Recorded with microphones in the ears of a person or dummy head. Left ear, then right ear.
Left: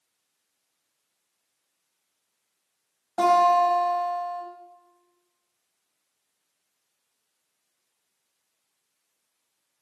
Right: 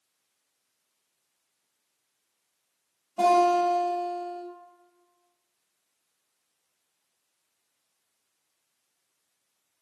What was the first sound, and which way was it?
A guitar, 50° left (ahead or behind).